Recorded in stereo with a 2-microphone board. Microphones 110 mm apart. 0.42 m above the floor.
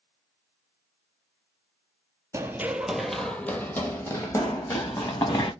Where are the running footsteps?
25° right (ahead or behind), 0.6 m; by 5.5 s 35° left (ahead or behind), 1.8 m.